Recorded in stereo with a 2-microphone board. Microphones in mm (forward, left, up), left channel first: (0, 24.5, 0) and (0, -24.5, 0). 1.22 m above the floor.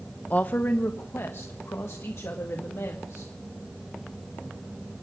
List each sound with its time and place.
0.3 s a woman speaking: 30° left (ahead or behind), 0.8 m; by 3.3 s 65° left (ahead or behind), 2 m